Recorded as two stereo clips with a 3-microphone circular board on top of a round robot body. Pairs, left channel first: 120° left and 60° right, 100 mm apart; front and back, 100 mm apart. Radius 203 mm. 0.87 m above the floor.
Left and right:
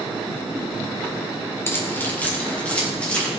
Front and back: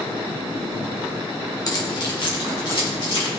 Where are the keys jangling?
55° left, 1.7 m; by 3.3 s 40° left, 4 m.